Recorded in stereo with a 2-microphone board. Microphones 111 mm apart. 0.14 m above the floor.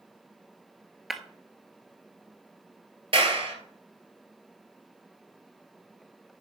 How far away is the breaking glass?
About 0.9 m.